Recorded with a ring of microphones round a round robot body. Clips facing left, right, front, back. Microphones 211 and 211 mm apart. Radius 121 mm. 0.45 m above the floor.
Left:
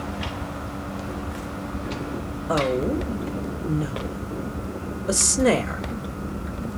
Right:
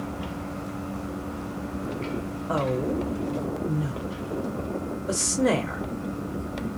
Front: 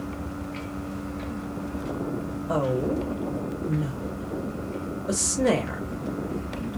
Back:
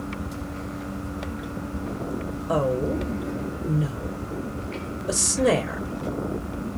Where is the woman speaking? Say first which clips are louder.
Left 4 dB, back 1 dB; 110° left, 0.9 m.